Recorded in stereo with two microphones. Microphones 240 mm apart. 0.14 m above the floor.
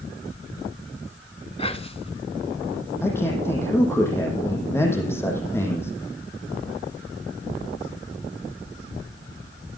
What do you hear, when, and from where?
1.6 s whispering: 25° left (ahead or behind), 1.1 m
3.0 s a man speaking: 10° left (ahead or behind), 7 m